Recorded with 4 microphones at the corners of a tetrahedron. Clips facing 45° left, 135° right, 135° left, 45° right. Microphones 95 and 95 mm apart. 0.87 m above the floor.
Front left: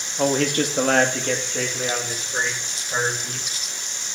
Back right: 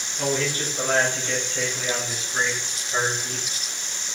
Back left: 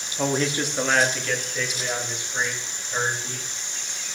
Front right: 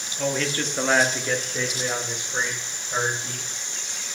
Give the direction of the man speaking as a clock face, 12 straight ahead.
9 o'clock.